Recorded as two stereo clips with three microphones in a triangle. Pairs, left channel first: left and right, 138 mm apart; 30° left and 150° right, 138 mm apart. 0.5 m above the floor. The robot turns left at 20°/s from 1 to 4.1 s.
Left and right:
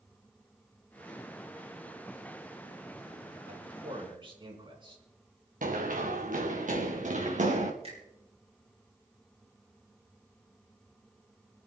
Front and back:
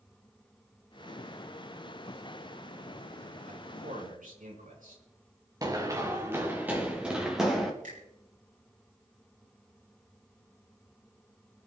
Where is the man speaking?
130° right, 4.5 m; by 5.0 s 140° right, 4.5 m.